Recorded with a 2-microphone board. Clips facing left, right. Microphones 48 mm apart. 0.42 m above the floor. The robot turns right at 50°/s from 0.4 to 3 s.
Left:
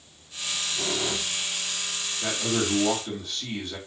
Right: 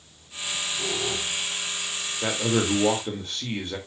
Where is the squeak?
55° left, 3 m; by 1.5 s 110° left, 3 m.